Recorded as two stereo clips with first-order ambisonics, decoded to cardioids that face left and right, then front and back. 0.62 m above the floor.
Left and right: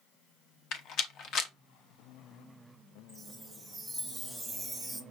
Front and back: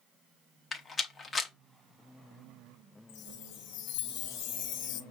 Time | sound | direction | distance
0.7 | a rattle | 70° left | 0.7 m
3.1 | a chime | 5° left | 1.0 m